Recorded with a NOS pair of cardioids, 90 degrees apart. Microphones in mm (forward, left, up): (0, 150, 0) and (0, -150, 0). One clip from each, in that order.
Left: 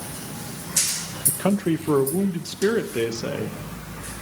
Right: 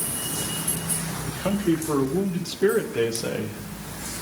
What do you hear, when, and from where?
1.3 s a man speaking: 50° left, 1.9 m; by 3.6 s 5° left, 2.0 m